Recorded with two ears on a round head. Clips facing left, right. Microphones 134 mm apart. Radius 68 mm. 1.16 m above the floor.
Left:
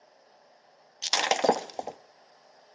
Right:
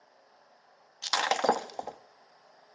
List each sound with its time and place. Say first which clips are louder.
1.0 s breaking glass: left 2 dB; 25° left (ahead or behind), 0.6 m